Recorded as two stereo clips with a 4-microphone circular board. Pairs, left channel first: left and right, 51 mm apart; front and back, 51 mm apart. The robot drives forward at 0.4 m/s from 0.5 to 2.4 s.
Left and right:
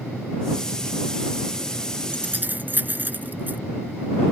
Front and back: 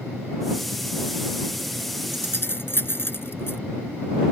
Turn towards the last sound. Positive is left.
turn(degrees=-40)